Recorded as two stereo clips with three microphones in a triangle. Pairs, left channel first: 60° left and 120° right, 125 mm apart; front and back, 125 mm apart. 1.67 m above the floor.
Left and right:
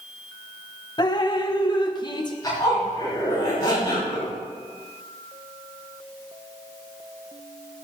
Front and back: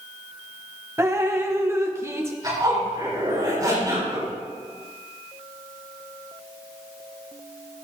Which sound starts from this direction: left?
Dripping, at 1.0 s.